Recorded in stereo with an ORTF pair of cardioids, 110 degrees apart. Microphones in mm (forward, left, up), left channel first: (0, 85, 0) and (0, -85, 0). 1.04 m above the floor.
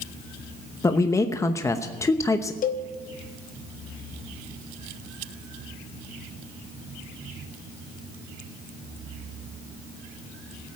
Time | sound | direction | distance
0.8 | a man speaking | 20° left | 0.9 m
2.6 | a cowbell | 55° left | 1.1 m